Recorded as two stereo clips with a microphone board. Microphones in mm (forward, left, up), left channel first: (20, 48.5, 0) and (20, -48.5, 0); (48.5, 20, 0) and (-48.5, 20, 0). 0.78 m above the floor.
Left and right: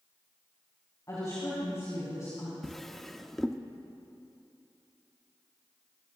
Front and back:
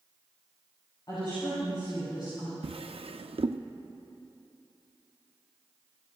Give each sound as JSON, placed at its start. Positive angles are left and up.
{"t": 1.1, "sound": "a woman speaking", "azimuth_deg": 35, "distance_m": 5.5}
{"t": 2.6, "sound": "a drawer", "azimuth_deg": 180, "distance_m": 0.5}